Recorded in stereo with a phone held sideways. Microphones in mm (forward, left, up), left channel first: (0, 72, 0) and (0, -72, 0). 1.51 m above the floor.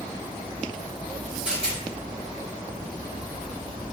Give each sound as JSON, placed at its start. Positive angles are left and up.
{"t": 1.4, "sound": "a rattle", "side_deg": -10, "distance_m": 1.1}